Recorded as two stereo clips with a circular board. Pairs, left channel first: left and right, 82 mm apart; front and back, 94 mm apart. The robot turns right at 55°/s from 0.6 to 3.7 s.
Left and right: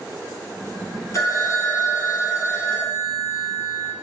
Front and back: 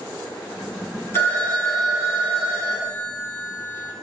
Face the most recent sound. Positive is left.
turn(degrees=-160)